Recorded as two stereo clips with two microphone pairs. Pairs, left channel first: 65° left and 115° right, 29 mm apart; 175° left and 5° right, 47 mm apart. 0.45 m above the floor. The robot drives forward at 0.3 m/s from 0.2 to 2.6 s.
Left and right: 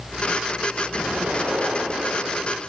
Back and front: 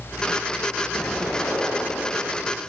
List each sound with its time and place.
0.9 s an explosion: 100° right, 7 m